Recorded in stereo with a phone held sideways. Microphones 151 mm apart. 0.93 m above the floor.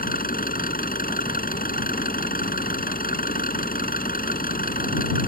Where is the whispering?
No whispering in this recording.